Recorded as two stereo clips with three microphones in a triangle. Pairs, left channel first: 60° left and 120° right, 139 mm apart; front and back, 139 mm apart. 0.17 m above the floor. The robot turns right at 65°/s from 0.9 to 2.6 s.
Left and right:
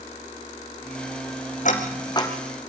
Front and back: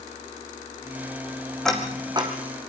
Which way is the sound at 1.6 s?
85° left.